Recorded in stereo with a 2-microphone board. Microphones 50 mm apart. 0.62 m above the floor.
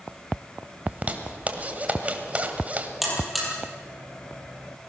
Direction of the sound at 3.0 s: Centre (ahead or behind).